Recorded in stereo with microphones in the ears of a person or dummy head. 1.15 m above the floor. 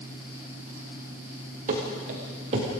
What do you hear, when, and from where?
1.7 s running footsteps: 50° right (ahead or behind), 6 m; by 2.7 s 40° right (ahead or behind), 6 m